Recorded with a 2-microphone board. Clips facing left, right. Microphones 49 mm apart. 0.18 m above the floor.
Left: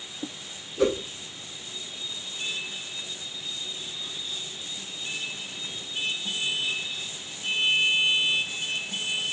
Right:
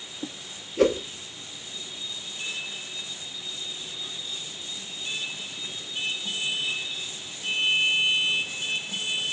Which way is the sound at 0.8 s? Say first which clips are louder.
Right 3 dB; 70° right (ahead or behind).